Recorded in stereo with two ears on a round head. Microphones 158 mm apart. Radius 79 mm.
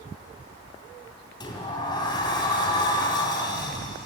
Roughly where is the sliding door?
Left.